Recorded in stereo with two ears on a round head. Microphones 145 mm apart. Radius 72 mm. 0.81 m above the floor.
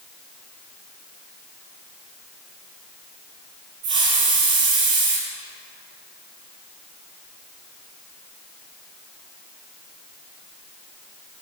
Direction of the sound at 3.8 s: 85° right.